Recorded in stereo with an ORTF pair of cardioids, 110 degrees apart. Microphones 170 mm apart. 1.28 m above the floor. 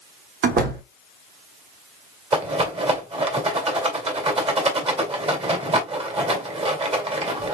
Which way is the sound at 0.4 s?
70° right.